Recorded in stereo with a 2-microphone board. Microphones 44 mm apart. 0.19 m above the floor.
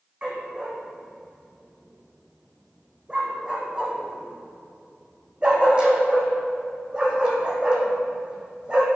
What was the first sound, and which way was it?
A dog barking, 20° right (ahead or behind).